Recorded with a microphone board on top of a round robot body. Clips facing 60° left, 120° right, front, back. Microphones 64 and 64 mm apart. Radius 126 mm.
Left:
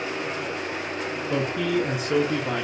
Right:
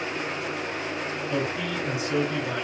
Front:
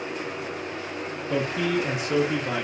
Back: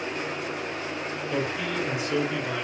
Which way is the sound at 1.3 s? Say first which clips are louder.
Left 5 dB, front 5 dB; 30° left.